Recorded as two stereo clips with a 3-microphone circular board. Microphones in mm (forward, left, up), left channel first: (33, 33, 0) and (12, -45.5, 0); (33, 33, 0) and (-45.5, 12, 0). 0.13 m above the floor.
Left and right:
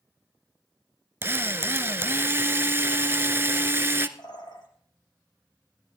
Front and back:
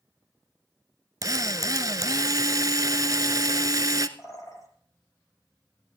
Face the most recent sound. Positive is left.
turn(degrees=60)